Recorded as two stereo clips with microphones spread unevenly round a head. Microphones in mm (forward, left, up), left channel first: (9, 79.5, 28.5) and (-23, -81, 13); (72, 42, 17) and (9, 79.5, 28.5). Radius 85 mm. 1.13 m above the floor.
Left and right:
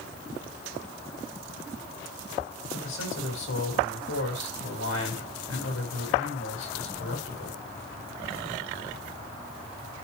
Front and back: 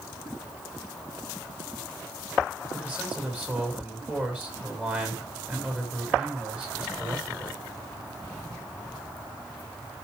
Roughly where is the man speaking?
Left.